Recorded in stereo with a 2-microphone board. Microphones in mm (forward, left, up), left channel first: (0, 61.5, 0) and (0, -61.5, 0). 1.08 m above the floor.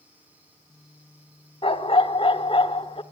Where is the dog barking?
45° left (ahead or behind), 1.1 m.